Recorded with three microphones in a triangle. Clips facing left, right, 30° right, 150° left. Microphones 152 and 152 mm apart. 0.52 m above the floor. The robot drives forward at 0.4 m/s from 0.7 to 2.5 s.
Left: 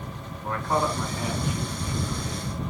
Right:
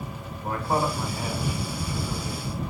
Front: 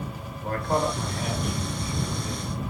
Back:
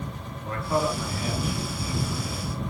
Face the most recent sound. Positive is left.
turn(degrees=-20)